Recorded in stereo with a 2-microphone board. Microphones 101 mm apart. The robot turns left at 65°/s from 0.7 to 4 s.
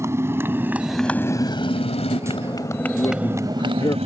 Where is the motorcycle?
30° right (ahead or behind); by 4.0 s 85° right.